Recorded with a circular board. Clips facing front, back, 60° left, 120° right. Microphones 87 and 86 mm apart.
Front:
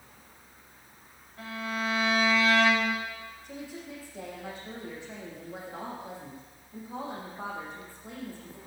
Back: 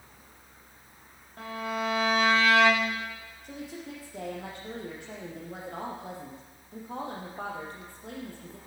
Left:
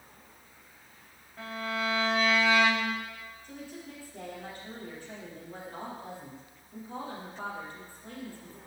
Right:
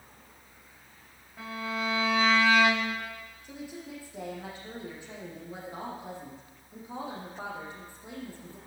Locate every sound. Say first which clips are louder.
1.4 s a violin: back 2 dB, even; 155° left, 7.5 m
3.4 s a woman speaking: back 3 dB, right 3 dB; 160° left, 6 m